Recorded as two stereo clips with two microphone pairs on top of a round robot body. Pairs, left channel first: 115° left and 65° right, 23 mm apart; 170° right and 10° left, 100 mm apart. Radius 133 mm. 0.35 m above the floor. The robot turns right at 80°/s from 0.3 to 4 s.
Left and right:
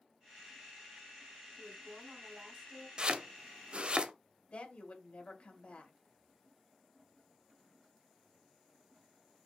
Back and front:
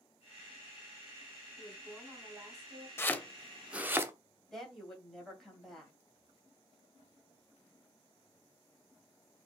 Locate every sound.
1.6 s a woman speaking: 110° right, 2 m; by 2.9 s 5° right, 2 m
3.0 s chopping: 115° right, 0.9 m; by 4.1 s 30° right, 0.9 m
4.5 s a woman speaking: 100° left, 2.5 m